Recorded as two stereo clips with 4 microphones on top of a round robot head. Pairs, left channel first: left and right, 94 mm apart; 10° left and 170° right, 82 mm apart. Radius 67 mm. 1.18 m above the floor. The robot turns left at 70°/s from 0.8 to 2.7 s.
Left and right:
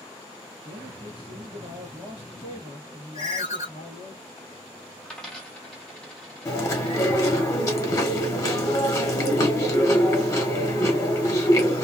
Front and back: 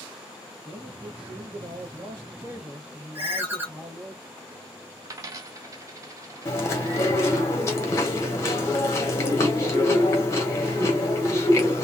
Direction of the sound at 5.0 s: 175° left.